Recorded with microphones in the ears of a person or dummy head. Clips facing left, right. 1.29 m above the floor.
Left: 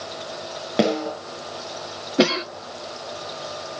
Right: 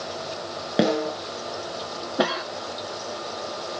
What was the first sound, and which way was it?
A snare drum, 5° right (ahead or behind).